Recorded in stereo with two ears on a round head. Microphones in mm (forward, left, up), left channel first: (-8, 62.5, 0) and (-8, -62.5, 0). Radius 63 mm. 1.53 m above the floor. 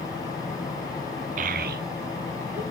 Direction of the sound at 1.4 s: 60° right (ahead or behind).